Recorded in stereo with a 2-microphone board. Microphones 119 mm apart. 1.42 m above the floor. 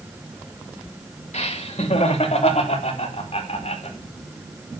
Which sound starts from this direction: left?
Laughter, at 1.3 s.